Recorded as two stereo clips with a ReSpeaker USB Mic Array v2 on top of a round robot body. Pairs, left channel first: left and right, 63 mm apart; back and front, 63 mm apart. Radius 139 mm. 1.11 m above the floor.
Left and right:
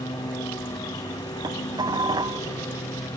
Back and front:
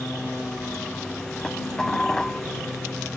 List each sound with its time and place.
0.0 s a lawn mower: 100° left; by 3.2 s 95° left
1.4 s dishes clattering: 100° right